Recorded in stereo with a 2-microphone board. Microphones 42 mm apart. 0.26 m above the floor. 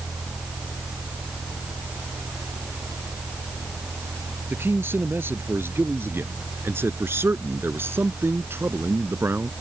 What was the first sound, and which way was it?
A man speaking, 60° right (ahead or behind).